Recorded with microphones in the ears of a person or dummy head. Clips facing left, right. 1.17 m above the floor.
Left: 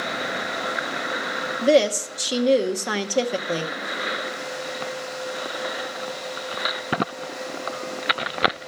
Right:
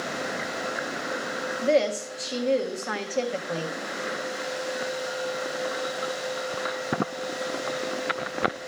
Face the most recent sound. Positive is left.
turn(degrees=55)  # may be behind; listen again after turning